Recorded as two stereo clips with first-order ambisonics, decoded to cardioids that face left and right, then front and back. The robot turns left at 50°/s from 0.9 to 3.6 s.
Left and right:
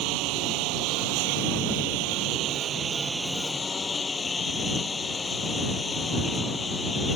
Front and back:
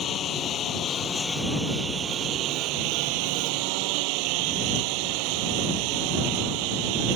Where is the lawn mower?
60° right; by 7.2 s 165° left.